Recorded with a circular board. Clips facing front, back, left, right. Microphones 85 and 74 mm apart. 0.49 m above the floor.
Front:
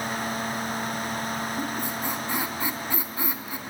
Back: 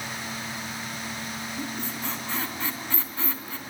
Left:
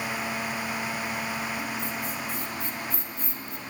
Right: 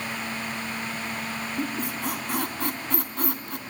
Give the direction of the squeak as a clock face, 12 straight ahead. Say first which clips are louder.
Front 4 dB, right 3 dB; 3 o'clock.